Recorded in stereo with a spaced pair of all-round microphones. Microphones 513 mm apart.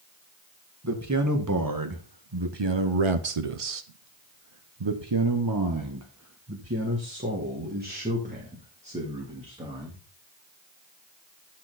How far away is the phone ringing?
I don't hear a phone ringing.